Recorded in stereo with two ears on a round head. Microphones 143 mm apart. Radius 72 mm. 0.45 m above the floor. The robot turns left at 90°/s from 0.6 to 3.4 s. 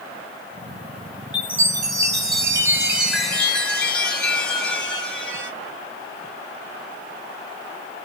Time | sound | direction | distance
1.3 | a chime | 5° right (ahead or behind) | 1.2 m